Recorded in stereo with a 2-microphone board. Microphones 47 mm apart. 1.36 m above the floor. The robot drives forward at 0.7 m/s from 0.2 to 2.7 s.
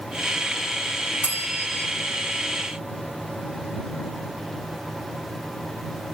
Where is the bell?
35° right (ahead or behind), 1.0 m; by 1.9 s 30° right (ahead or behind), 1.2 m.